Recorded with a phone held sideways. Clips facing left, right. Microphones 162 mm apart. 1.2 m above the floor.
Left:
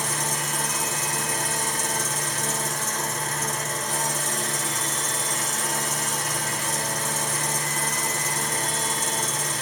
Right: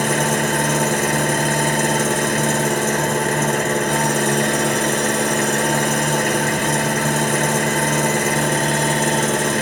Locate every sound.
0.0 s an engine running: 70° right (ahead or behind), 0.9 m